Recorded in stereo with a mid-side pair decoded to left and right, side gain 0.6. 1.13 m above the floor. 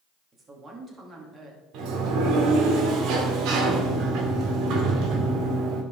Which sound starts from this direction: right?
A sliding door, at 1.7 s.